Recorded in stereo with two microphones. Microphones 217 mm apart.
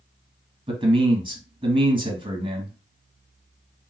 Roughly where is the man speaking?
Right.